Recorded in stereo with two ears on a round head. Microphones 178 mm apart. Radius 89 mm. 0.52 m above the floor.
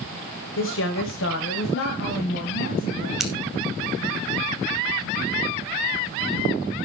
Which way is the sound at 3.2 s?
Centre (ahead or behind).